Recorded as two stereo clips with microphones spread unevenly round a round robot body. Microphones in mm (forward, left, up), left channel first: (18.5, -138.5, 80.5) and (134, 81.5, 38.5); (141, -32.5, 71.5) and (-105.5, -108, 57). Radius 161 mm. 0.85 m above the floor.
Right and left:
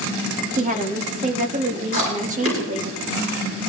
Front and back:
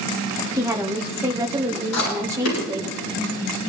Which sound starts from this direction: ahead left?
Chewing, at 1.9 s.